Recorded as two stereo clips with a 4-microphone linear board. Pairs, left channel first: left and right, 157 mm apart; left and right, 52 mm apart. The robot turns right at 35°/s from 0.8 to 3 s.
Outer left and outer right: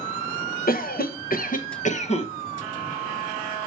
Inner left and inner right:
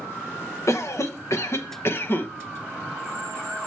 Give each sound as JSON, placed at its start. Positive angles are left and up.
{"t": 0.7, "sound": "a cough", "azimuth_deg": 85, "distance_m": 0.8}